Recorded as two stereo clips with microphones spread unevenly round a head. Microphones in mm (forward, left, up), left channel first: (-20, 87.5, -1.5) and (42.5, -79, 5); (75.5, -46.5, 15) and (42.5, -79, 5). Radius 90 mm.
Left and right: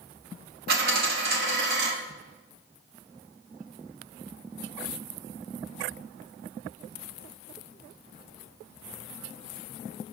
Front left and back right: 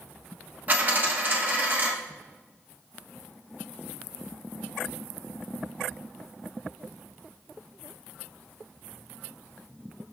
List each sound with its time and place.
0.7 s a dropped coin: 80° right, 1.3 m